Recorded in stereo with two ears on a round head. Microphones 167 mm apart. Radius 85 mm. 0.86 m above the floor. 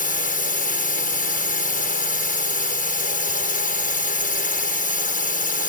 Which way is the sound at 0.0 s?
50° left (ahead or behind).